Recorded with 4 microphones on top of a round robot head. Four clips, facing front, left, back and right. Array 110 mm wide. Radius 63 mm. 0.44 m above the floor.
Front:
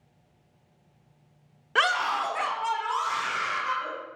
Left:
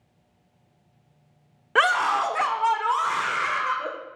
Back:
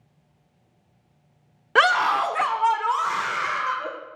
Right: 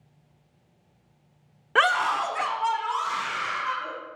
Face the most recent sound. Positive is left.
turn(degrees=130)